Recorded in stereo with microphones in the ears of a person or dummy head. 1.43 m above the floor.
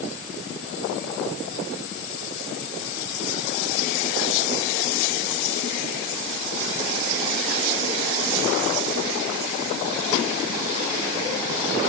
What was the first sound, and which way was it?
Only background noise.